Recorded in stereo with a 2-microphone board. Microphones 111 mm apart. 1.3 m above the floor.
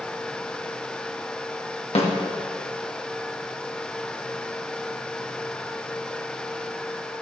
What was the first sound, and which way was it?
A snare drum, 75° left (ahead or behind).